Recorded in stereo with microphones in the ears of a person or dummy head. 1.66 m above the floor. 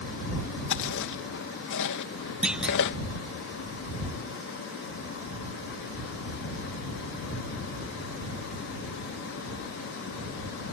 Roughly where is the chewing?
Left.